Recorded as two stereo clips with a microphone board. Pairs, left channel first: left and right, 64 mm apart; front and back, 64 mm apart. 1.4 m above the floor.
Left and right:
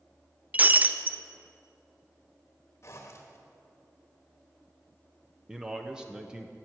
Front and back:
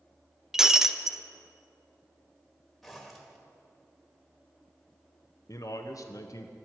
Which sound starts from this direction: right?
Breaking glass, at 0.5 s.